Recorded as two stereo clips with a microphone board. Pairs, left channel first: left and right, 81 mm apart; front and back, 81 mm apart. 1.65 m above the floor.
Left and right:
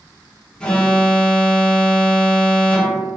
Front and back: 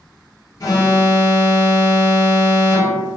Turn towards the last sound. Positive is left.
turn(degrees=15)